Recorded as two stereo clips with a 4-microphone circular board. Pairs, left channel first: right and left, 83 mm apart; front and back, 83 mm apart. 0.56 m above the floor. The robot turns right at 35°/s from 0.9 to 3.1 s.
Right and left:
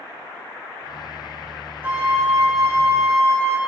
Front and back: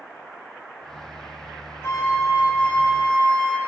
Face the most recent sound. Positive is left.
turn(degrees=80)